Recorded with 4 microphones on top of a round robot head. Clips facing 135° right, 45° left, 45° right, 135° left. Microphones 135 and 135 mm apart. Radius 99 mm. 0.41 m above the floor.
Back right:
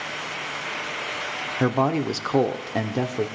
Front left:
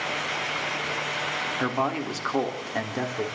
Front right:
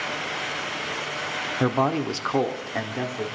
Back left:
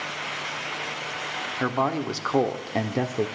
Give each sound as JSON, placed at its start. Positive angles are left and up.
{"t": 1.6, "sound": "a man speaking", "azimuth_deg": -100, "distance_m": 0.9}